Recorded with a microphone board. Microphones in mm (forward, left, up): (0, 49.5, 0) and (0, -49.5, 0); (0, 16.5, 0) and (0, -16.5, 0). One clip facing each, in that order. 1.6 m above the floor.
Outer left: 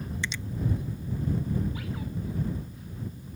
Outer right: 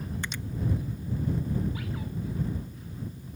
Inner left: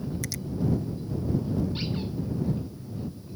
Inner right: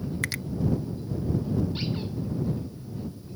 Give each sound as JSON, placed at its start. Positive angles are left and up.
{"t": 0.2, "sound": "a finger snap", "side_deg": -55}